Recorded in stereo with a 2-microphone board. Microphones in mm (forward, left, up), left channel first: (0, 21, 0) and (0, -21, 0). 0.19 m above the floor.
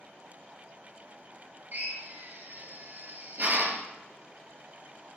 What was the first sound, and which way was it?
A drill, 45° right (ahead or behind).